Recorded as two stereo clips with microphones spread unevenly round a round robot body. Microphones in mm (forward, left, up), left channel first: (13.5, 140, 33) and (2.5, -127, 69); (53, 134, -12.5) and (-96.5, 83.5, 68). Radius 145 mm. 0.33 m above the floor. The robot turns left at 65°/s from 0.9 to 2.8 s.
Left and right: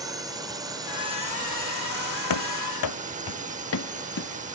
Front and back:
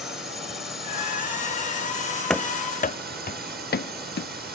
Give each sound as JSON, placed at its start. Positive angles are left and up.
{"t": 0.0, "sound": "a drone", "azimuth_deg": -15}
{"t": 2.3, "sound": "running footsteps", "azimuth_deg": 115}